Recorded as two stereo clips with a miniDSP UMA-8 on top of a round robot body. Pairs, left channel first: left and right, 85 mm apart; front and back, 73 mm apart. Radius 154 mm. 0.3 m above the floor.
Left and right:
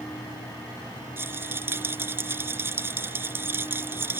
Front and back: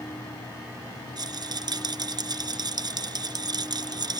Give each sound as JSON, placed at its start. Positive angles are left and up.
{"t": 1.2, "sound": "a rattle", "azimuth_deg": -155}